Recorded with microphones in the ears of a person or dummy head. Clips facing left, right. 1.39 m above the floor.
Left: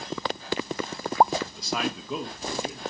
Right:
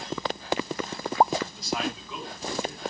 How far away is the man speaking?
About 1.1 m.